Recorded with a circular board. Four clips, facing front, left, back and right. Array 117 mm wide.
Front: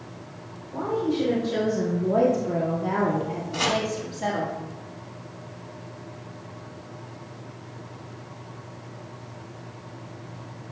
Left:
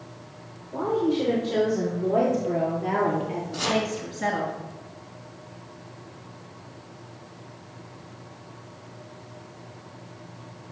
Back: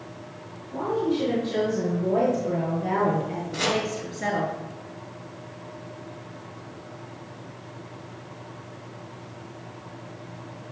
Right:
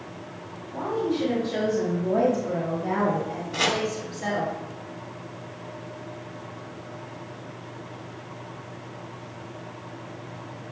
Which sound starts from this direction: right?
Chopping, at 3.5 s.